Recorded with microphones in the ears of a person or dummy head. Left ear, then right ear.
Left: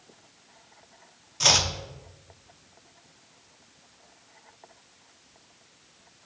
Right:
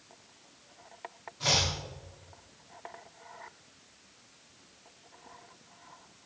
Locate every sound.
1.4 s chopping: 65° left (ahead or behind), 0.7 m